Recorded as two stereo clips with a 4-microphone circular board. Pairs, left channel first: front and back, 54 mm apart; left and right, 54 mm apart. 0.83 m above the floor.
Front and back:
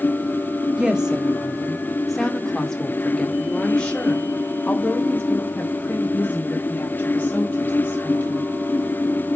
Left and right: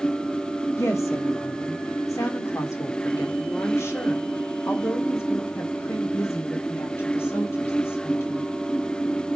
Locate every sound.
0.8 s a woman speaking: 105° left, 1.7 m; by 8.4 s 55° left, 5.5 m